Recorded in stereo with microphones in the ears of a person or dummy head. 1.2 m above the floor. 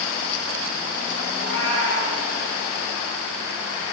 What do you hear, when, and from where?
1.3 s a cat meowing: 70° left (ahead or behind), 3 m